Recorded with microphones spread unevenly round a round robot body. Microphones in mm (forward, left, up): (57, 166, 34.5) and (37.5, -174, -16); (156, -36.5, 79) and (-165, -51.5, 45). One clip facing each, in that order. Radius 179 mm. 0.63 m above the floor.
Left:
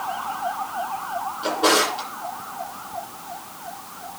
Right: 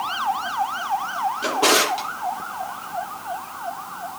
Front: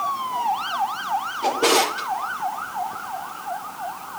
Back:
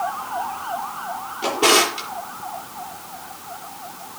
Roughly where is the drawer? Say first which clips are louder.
Even, back 1 dB; behind right.